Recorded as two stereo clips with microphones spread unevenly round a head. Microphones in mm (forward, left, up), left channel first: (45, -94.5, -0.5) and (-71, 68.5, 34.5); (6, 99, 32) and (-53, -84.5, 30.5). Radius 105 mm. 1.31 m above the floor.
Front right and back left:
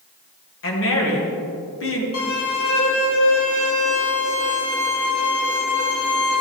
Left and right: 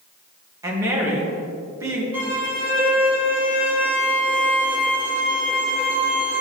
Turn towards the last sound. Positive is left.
turn(degrees=-25)